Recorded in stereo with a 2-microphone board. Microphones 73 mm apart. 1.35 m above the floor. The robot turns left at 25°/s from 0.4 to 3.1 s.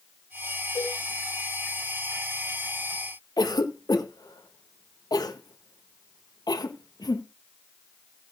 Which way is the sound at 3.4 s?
60° left (ahead or behind).